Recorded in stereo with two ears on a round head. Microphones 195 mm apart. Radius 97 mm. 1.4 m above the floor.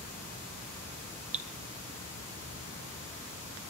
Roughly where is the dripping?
Right.